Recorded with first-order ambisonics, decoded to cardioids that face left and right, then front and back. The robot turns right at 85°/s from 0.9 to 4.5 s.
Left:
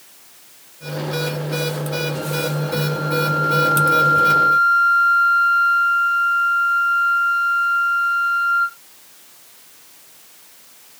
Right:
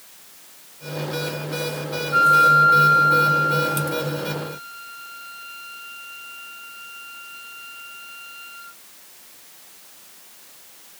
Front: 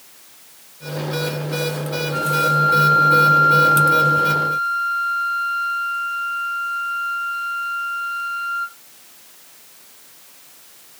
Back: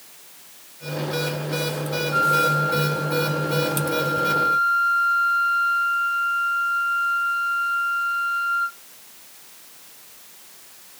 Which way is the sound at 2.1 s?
105° right.